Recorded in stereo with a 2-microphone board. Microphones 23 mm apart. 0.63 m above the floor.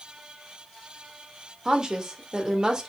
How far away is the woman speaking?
About 2.0 m.